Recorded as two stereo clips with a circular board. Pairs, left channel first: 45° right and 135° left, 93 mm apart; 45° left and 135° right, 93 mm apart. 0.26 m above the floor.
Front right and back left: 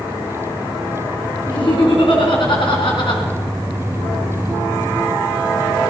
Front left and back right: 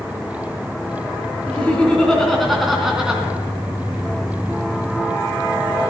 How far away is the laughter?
About 3 m.